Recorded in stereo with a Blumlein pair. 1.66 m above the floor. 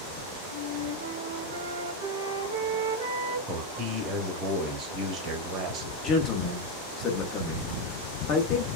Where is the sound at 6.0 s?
25° left, 1.2 m.